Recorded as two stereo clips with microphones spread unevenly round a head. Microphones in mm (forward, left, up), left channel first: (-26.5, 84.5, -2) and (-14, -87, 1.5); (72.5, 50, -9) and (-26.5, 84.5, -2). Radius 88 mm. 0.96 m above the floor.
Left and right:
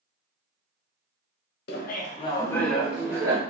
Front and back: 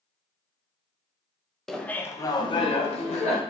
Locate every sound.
1.7 s laughter: 65° left, 0.7 m; by 3.4 s 15° right, 1.0 m